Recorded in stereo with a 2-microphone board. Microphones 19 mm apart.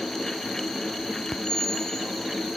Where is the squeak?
40° left (ahead or behind), 3 m.